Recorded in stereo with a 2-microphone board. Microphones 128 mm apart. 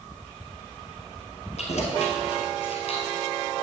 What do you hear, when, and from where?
1.6 s keys jangling: 60° left (ahead or behind), 1.6 m; by 3.3 s 45° left (ahead or behind), 1.6 m